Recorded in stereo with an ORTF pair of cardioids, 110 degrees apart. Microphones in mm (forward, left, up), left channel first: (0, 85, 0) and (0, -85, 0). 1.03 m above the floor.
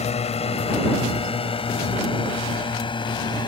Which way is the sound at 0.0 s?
40° left.